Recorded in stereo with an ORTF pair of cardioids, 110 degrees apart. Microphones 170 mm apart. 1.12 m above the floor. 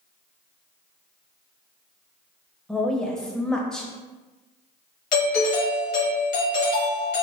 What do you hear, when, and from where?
2.7 s a woman speaking: 5° left, 0.7 m
5.1 s a doorbell: 55° left, 1.4 m